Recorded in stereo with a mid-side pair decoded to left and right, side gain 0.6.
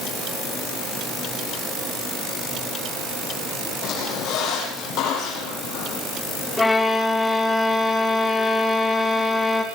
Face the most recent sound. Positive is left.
turn(degrees=15)